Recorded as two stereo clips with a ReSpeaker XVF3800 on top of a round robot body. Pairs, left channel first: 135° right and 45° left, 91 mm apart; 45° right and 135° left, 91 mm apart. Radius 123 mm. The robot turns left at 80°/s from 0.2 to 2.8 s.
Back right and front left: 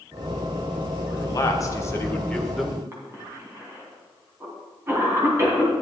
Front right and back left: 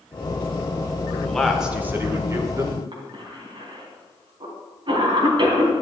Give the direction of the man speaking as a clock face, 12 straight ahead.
4 o'clock.